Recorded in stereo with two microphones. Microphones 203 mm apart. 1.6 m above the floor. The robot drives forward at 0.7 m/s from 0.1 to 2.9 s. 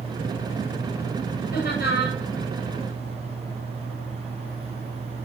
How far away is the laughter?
About 10 m.